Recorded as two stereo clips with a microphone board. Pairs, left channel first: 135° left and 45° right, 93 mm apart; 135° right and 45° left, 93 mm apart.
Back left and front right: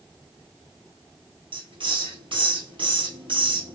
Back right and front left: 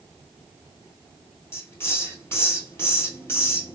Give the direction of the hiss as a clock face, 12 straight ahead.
2 o'clock.